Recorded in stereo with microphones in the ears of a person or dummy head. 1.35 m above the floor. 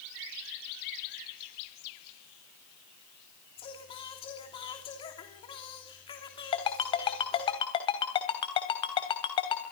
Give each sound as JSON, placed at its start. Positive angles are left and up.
{"t": 3.6, "sound": "singing", "side_deg": 30, "distance_m": 3.0}
{"t": 6.5, "sound": "a ringtone", "side_deg": 35, "distance_m": 3.0}